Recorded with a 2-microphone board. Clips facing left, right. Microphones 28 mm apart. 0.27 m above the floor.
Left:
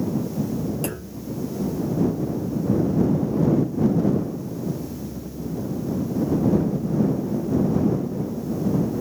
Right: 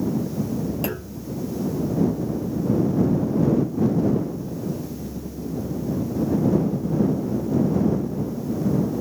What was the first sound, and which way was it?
A clunk, 15° right (ahead or behind).